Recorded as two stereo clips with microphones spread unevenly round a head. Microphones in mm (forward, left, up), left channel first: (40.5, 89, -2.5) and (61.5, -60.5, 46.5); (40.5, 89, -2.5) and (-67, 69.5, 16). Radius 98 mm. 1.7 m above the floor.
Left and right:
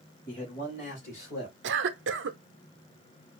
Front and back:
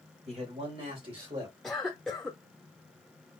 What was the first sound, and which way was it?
A man speaking, 165° left.